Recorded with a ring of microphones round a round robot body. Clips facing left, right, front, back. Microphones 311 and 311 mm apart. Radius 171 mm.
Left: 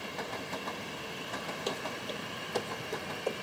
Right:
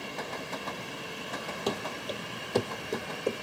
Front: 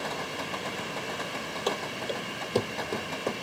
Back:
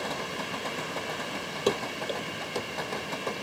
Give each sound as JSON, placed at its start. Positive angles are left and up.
{"t": 1.7, "sound": "running footsteps", "azimuth_deg": -120, "distance_m": 0.8}